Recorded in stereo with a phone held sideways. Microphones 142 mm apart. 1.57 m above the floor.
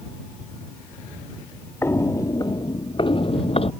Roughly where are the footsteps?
Centre.